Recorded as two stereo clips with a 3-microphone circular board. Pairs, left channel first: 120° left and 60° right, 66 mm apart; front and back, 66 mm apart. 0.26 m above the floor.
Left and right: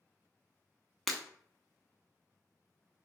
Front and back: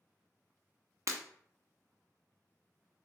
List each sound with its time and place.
1.1 s breaking glass: 155° right, 0.5 m